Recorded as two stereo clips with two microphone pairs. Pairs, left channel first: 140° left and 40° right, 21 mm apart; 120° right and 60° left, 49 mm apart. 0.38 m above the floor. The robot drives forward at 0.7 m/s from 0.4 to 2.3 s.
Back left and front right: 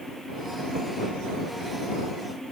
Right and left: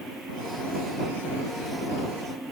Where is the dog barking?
I don't hear a dog barking.